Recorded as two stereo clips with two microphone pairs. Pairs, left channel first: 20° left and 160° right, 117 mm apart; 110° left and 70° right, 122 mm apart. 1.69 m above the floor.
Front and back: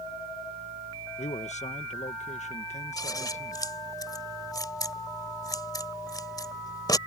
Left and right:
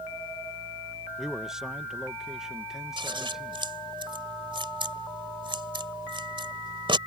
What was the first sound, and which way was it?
A man speaking, 15° left.